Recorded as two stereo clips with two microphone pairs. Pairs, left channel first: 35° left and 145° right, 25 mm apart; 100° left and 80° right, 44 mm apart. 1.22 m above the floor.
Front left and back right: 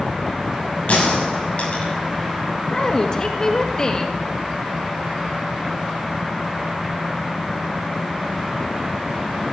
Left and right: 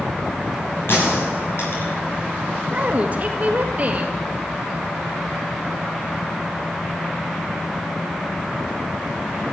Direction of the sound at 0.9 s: 70° left.